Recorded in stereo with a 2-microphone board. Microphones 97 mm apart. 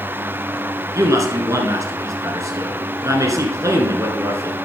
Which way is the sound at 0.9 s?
35° right (ahead or behind).